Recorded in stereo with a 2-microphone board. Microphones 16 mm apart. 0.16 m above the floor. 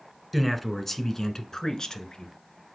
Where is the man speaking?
Centre (ahead or behind), 1.3 m; by 2.3 s 50° left (ahead or behind), 1.8 m.